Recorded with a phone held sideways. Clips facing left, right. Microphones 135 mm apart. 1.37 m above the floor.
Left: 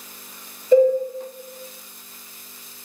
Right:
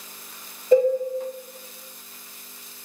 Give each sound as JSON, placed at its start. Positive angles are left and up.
{"t": 0.7, "sound": "a cowbell", "side_deg": -40, "distance_m": 1.7}